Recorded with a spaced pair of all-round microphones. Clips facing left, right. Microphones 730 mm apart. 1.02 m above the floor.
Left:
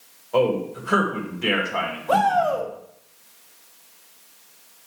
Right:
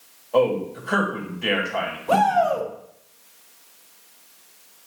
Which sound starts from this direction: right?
A shout, at 2.1 s.